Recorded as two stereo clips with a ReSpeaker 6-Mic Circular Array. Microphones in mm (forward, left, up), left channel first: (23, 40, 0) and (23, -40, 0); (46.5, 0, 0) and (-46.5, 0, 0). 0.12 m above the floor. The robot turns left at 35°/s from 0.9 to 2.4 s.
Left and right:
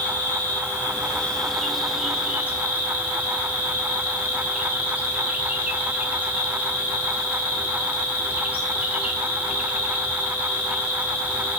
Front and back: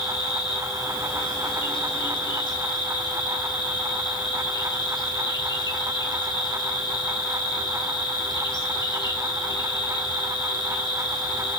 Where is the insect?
30° left, 1.0 m; by 11.6 s 20° right, 1.0 m.